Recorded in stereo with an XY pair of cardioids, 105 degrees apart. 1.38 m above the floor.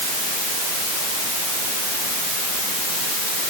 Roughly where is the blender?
I don't hear a blender.